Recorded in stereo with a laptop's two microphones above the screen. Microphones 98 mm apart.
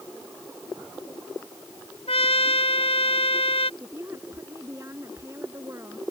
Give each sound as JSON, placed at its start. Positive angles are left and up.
{"t": 2.1, "sound": "a trumpet", "side_deg": 85}
{"t": 3.8, "sound": "a woman speaking", "side_deg": -30}